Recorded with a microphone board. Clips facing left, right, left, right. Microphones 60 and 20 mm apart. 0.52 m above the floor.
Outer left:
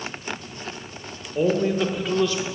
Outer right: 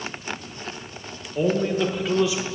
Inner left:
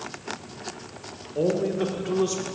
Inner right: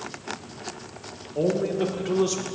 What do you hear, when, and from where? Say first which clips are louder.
1.4 s a man speaking: outer left 1 dB, even; 15° left (ahead or behind), 1.6 m; by 2.5 s 15° right (ahead or behind), 1.0 m